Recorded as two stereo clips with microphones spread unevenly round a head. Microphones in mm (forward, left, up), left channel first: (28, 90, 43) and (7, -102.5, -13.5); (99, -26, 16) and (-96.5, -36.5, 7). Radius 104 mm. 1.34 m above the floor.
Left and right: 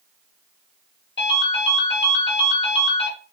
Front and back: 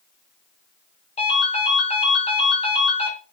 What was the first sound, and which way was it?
A ringtone, 65° left.